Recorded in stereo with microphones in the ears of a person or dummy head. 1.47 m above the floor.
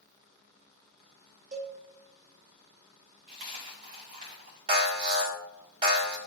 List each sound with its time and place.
1.5 s a cowbell: 40° right (ahead or behind), 1.9 m
3.3 s a dropped coin: 35° right (ahead or behind), 1.2 m
4.7 s an alarm: 25° right (ahead or behind), 1.8 m